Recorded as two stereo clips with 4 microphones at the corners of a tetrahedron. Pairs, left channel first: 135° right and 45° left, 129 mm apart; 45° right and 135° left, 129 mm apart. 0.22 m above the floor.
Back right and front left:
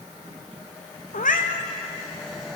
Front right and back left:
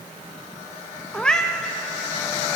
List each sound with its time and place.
1.1 s a cat meowing: 130° right, 1.9 m